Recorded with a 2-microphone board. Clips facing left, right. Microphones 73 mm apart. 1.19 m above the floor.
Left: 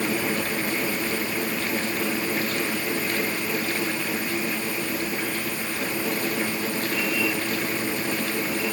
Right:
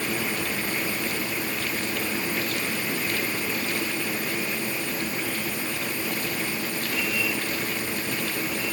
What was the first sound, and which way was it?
Only background noise.